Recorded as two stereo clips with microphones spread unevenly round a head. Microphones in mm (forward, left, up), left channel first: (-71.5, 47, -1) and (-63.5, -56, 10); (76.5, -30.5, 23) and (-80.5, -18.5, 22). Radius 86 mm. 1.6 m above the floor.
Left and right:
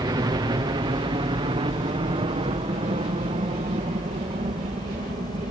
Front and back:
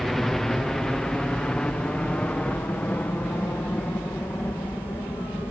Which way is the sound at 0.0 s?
95° right.